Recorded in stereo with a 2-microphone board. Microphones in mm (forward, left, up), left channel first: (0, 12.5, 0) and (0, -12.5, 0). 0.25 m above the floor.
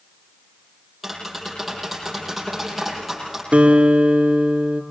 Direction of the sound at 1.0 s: 5° right (ahead or behind).